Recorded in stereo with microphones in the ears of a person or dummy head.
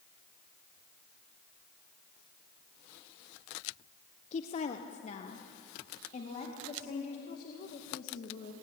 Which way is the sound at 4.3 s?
40° left (ahead or behind).